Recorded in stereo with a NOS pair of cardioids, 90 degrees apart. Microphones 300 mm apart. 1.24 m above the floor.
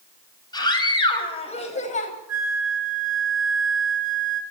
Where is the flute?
55° right, 5 m.